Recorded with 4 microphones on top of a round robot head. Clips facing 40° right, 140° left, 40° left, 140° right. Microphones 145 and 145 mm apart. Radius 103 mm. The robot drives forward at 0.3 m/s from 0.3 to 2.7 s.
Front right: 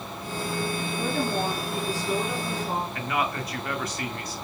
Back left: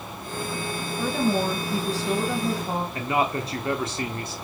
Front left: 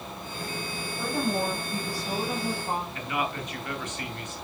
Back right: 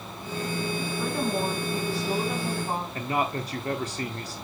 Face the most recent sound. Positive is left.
turn(degrees=-175)